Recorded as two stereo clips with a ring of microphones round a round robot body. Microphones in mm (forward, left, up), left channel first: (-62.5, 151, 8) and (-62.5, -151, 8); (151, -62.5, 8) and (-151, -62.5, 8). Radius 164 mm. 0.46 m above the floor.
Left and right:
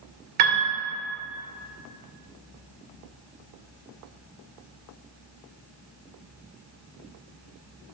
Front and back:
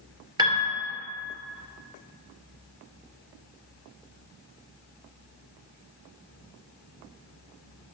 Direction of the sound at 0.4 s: 105° right.